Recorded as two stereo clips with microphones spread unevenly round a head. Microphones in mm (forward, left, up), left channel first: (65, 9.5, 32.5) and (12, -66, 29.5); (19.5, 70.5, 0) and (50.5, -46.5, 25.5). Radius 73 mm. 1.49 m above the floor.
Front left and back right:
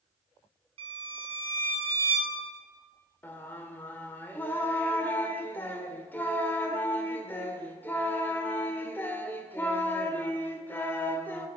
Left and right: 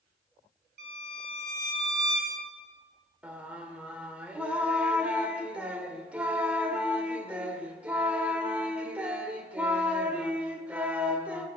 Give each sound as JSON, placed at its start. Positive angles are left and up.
{"t": 0.8, "sound": "a violin", "azimuth_deg": -120, "distance_m": 3.5}
{"t": 3.2, "sound": "singing", "azimuth_deg": -5, "distance_m": 1.8}